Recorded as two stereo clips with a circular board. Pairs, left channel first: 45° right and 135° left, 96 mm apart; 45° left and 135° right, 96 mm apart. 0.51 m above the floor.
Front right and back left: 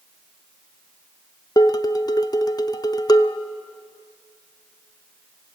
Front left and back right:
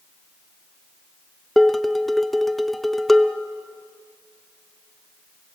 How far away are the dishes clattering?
About 0.6 m.